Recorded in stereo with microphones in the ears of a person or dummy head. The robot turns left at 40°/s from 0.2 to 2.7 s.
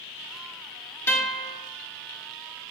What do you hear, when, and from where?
1.1 s a guitar: 5° left (ahead or behind), 0.7 m; by 1.5 s 10° right (ahead or behind), 0.7 m